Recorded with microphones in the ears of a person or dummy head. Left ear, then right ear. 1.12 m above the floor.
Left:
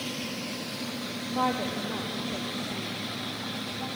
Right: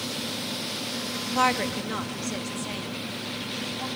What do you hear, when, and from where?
1.3 s a woman speaking: 65° right (ahead or behind), 1.5 m; by 3.9 s 40° right (ahead or behind), 2.5 m